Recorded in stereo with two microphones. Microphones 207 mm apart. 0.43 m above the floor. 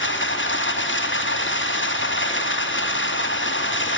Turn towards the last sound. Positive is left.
turn(degrees=70)  # may be behind; listen again after turning